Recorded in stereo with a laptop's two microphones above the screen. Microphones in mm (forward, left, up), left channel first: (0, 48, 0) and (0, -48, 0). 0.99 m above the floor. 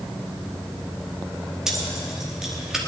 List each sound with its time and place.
1.7 s keys jangling: 5° right (ahead or behind), 1.3 m